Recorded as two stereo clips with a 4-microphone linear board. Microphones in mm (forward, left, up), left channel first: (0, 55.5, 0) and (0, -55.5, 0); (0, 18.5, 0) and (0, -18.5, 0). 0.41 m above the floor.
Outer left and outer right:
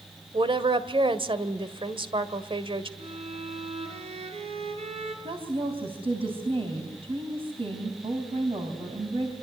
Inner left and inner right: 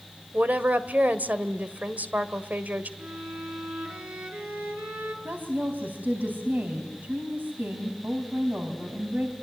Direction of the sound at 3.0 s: 60° right (ahead or behind).